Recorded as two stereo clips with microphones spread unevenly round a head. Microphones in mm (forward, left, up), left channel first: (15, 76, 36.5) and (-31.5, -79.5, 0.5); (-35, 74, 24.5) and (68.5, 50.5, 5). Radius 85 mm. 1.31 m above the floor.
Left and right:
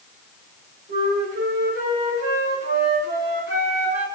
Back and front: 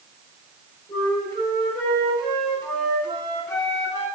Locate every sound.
0.9 s a flute: 125° right, 5 m